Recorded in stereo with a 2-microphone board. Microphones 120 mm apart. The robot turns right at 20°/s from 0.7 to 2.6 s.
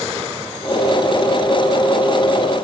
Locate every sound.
Only background noise.